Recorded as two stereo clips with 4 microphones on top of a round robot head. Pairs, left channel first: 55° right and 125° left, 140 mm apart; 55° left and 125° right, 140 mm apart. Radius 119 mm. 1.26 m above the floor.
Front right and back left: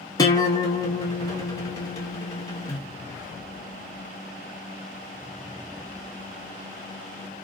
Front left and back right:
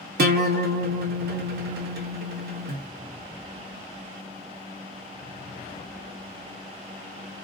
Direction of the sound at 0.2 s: 120° right.